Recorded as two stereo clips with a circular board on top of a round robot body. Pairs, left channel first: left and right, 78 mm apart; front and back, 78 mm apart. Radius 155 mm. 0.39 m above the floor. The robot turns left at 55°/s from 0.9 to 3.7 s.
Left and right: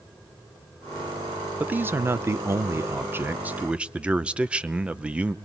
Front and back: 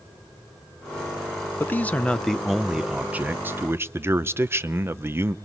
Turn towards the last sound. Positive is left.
turn(degrees=-155)